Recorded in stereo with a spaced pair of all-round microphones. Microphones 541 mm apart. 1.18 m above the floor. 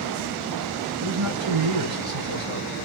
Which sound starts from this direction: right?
A man speaking, at 1.0 s.